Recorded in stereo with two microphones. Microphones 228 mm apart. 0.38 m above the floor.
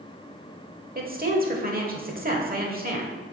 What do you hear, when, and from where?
0.9 s a woman speaking: 40° right (ahead or behind), 1.1 m